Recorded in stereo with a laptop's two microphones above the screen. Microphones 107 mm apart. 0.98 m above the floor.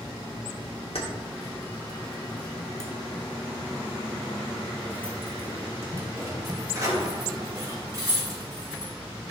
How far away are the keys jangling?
About 1.9 m.